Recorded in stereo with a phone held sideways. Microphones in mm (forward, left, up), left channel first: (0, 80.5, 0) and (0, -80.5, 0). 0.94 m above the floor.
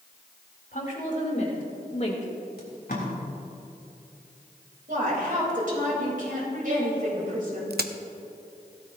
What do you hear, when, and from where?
0.7 s a woman speaking: 55° left (ahead or behind), 3.5 m; by 2.5 s 40° left (ahead or behind), 2.5 m
2.6 s tape being pulled: 75° left (ahead or behind), 3.5 m
4.9 s a woman speaking: 60° right (ahead or behind), 4.5 m
7.7 s a crack: 80° right, 0.7 m